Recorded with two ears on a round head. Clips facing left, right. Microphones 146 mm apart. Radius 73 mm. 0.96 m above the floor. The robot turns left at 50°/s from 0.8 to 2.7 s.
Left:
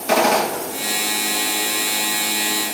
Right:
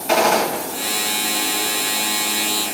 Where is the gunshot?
60° left (ahead or behind), 2 m.